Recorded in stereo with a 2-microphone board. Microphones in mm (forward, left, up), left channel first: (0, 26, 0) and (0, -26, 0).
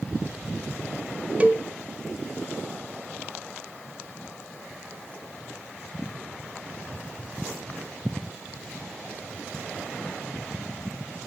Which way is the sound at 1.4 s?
25° right (ahead or behind).